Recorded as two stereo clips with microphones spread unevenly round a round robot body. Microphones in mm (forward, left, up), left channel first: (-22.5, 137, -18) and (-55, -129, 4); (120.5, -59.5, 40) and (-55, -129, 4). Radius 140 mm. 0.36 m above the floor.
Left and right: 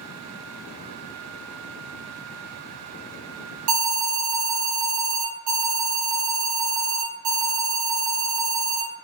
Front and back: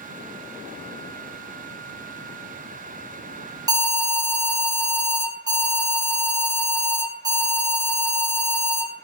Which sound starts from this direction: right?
An alarm, at 3.7 s.